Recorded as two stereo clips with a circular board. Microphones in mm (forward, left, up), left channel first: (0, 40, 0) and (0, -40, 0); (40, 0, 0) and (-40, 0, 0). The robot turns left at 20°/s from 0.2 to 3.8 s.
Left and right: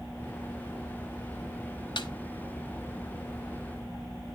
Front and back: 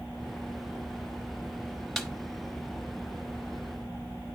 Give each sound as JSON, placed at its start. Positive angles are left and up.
{"t": 2.0, "sound": "a snare drum", "azimuth_deg": 90, "distance_m": 1.0}